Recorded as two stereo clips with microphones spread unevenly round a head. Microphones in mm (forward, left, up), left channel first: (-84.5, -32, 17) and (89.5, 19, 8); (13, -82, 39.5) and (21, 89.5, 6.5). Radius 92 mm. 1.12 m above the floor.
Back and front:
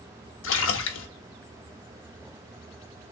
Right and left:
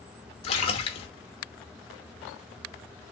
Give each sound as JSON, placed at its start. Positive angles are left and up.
{"t": 0.4, "sound": "a splash", "azimuth_deg": -150, "distance_m": 0.9}